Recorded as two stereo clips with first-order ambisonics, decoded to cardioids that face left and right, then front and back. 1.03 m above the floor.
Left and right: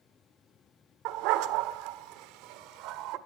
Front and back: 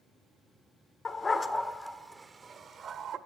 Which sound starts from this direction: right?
A dog barking, at 1.1 s.